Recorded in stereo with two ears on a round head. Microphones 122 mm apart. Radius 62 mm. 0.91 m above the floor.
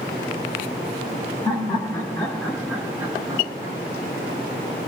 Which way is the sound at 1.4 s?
30° left (ahead or behind).